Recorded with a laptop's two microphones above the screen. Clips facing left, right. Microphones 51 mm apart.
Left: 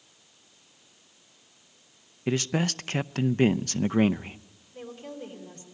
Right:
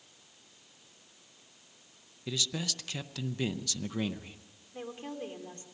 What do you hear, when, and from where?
2.3 s a man speaking: 45° left (ahead or behind), 0.5 m
4.7 s a woman speaking: 35° right (ahead or behind), 2.5 m